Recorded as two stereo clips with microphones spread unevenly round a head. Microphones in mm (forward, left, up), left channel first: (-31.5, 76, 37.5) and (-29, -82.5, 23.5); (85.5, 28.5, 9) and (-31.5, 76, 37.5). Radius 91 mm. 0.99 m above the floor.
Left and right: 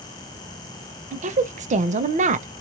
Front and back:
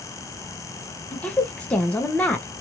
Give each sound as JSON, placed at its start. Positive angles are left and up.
{"t": 1.1, "sound": "a woman speaking", "azimuth_deg": -90, "distance_m": 0.6}